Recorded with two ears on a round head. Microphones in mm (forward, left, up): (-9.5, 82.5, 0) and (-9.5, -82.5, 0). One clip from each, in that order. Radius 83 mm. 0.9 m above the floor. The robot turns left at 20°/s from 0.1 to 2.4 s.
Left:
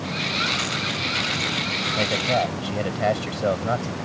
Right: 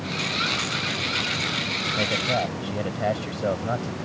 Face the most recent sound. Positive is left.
turn(degrees=25)  # may be behind; listen again after turning